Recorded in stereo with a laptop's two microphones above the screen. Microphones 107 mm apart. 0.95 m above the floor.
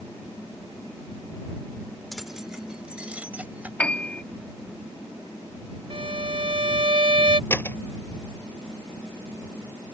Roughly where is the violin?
Right.